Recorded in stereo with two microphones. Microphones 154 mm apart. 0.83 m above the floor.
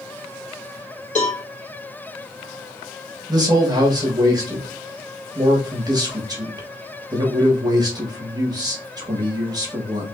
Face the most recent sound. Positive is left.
turn(degrees=-25)  # may be behind; listen again after turning